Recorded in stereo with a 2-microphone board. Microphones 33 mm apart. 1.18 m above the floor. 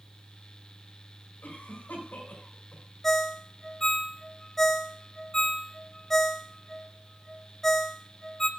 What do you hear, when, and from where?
1.4 s a cough: 75° left (ahead or behind), 6 m
3.0 s a ringtone: 10° left (ahead or behind), 0.5 m